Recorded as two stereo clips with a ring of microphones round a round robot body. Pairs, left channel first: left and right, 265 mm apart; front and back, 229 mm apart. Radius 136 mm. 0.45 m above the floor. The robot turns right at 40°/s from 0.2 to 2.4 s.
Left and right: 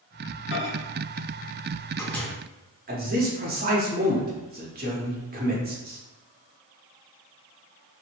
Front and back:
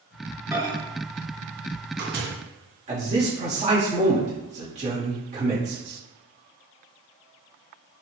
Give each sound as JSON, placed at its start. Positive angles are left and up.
{"t": 0.5, "sound": "a microwave", "azimuth_deg": 105, "distance_m": 0.8}
{"t": 2.9, "sound": "a man speaking", "azimuth_deg": -130, "distance_m": 1.0}